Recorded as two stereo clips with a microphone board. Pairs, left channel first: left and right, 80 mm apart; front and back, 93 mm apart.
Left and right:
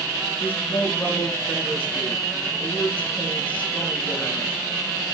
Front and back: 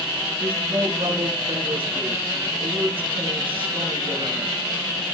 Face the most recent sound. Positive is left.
turn(degrees=160)